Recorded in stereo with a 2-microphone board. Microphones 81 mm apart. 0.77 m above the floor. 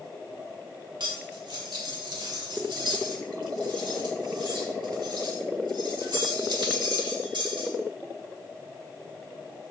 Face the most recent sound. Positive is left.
turn(degrees=-85)